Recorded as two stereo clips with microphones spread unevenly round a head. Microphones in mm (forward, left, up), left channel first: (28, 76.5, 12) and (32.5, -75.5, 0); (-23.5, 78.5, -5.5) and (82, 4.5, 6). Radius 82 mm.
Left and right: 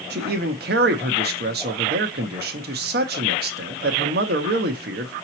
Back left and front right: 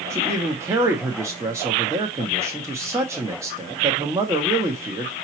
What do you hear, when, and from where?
0.1 s a man speaking: 110° right, 0.9 m